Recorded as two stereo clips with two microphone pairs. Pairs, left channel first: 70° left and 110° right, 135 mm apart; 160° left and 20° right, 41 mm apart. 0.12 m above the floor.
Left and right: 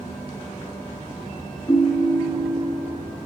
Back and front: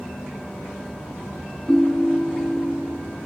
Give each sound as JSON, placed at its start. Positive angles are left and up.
{"t": 1.7, "sound": "a ringtone", "azimuth_deg": 90, "distance_m": 0.7}